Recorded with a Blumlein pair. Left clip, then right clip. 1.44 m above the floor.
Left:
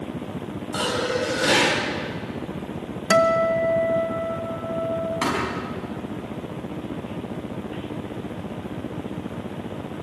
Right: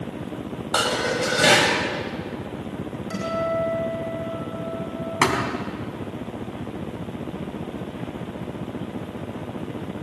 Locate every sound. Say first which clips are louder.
0.7 s dishes clattering: right 2 dB; 65° right, 6 m
3.1 s a guitar: left 8 dB; 50° left, 1.9 m
5.2 s a thud: right 7 dB; 20° right, 4 m